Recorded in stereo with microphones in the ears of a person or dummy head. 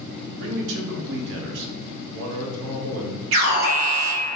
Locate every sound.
0.4 s a man speaking: 65° right (ahead or behind), 0.7 m
3.3 s an alarm: 75° right (ahead or behind), 1.9 m